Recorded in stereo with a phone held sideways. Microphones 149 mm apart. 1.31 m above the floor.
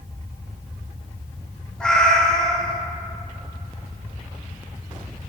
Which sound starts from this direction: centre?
A cat meowing, at 1.8 s.